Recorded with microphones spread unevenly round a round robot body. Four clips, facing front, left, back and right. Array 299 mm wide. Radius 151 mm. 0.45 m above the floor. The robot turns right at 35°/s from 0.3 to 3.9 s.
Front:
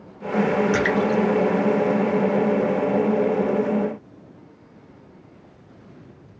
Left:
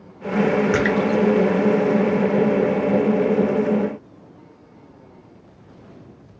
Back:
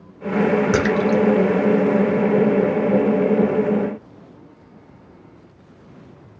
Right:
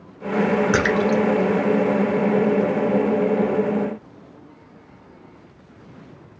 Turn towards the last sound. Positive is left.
turn(degrees=-75)